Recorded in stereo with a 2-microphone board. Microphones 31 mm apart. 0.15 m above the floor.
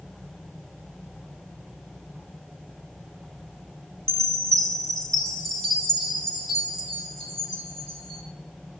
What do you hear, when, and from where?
4.1 s a chime: 20° left (ahead or behind), 1.8 m